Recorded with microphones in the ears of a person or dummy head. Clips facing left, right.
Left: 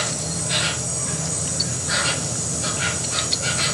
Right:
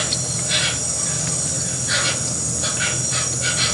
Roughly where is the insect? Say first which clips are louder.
Even; centre.